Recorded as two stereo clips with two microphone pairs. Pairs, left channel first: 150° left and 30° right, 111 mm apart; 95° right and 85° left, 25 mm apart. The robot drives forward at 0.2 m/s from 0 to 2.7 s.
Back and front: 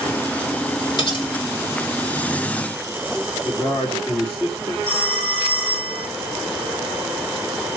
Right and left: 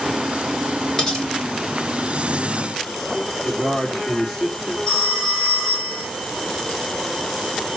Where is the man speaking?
155° right, 3.5 m.